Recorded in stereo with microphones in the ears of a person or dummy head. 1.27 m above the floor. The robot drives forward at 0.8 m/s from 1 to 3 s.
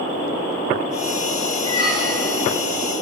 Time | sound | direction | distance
1.6 | a squeak | 35° left (ahead or behind) | 0.6 m